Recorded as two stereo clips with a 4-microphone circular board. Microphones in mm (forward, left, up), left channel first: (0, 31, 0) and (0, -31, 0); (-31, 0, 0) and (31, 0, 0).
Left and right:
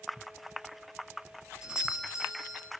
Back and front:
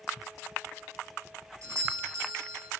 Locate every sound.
1.6 s a doorbell: 15° right, 3 m